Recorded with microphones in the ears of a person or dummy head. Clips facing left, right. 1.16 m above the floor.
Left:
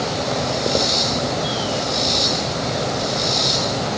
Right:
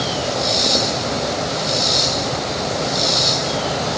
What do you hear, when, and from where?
Only background noise.